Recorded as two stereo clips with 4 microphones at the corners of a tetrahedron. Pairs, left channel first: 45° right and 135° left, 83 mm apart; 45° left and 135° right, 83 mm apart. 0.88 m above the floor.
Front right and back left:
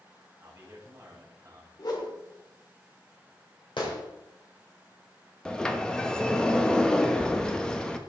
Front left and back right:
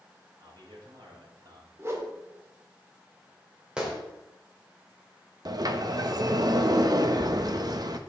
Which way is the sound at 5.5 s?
125° right.